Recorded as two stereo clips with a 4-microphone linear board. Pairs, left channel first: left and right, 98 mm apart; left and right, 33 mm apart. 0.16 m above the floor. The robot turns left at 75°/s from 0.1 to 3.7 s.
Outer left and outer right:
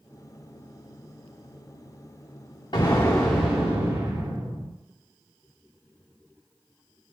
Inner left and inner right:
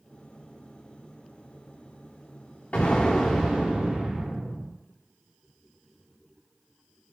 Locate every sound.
2.7 s an explosion: 50° left, 4 m; by 4.7 s 25° right, 4 m